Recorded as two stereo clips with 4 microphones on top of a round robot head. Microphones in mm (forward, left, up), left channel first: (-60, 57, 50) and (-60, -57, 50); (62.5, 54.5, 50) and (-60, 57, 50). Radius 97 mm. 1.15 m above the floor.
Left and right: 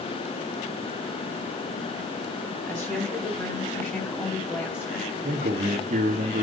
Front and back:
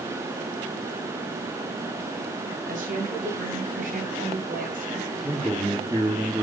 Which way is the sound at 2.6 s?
160° left.